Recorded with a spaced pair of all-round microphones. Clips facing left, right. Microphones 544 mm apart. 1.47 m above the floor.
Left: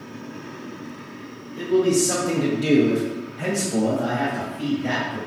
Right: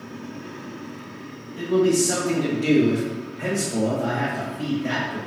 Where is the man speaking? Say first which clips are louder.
Even; centre (ahead or behind), 0.8 m; by 5.2 s 75° left (ahead or behind), 2 m.